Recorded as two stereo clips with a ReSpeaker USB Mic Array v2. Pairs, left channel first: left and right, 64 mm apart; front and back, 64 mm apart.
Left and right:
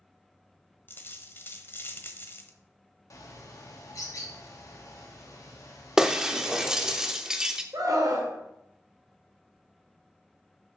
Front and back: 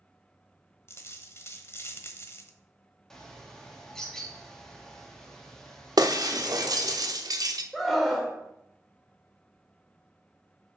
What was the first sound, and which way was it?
A dropped coin, 40° left.